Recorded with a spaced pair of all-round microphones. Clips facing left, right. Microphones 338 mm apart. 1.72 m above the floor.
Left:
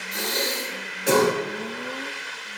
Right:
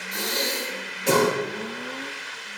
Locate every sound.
0.1 s breathing: 5° left (ahead or behind), 2.5 m